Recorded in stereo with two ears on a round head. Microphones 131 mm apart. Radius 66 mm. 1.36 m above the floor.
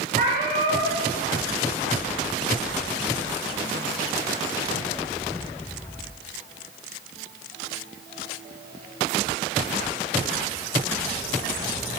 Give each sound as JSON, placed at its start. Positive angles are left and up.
{"t": 0.1, "sound": "a cat meowing", "side_deg": -60, "distance_m": 8.0}